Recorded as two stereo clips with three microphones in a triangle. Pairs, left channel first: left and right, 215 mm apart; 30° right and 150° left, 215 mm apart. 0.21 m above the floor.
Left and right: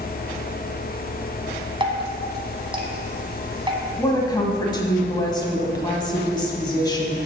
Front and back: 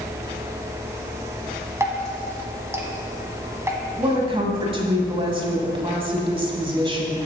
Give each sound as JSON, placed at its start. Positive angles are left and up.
{"t": 1.8, "sound": "dripping", "azimuth_deg": -140, "distance_m": 1.3}
{"t": 4.0, "sound": "a woman speaking", "azimuth_deg": 130, "distance_m": 1.4}